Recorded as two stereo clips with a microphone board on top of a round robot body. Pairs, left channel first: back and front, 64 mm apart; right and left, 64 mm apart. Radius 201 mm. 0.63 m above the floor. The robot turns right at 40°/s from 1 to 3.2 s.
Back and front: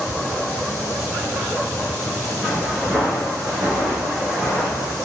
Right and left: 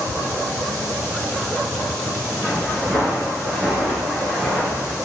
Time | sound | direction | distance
2.4 | footsteps | 125° right | 0.7 m